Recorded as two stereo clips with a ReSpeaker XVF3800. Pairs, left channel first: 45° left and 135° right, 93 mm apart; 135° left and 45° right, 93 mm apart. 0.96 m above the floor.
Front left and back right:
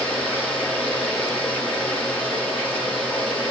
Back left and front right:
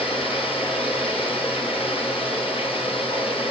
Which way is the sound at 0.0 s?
120° left.